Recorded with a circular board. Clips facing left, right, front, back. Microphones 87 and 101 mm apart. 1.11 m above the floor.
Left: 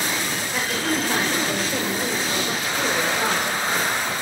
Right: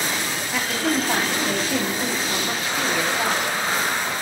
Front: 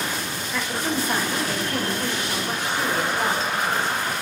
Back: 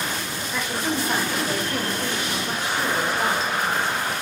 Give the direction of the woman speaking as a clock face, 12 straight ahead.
3 o'clock.